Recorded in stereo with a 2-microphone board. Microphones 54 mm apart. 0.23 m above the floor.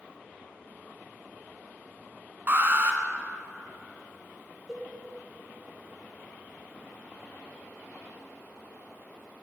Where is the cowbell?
5° left (ahead or behind), 3.5 m.